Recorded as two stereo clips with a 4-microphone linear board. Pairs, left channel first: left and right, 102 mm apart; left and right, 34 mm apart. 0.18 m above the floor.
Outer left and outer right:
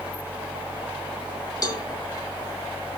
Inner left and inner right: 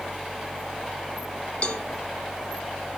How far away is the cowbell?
About 1.1 m.